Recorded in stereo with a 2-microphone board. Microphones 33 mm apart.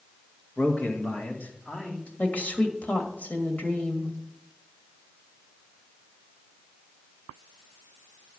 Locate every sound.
0.6 s a man speaking: 60° left (ahead or behind), 1.4 m; by 2.1 s 50° left (ahead or behind), 2.5 m
2.2 s a woman speaking: 60° left (ahead or behind), 1.9 m